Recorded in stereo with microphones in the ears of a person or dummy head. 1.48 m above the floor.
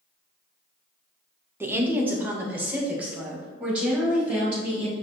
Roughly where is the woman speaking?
Centre.